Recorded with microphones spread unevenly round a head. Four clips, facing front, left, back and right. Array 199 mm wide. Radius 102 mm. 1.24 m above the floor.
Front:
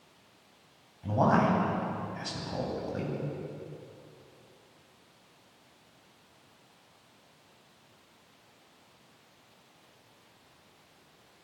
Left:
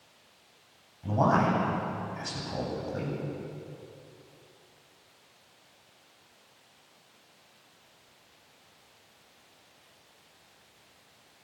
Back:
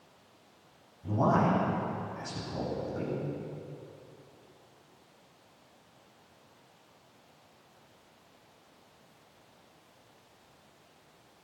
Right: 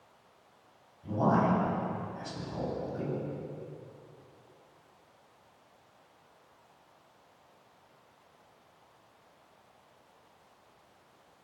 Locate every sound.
1.0 s a man speaking: 40° left, 9 m